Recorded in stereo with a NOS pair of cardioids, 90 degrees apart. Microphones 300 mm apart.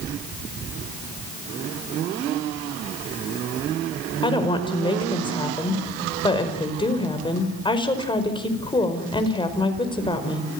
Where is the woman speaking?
15° left, 5 m.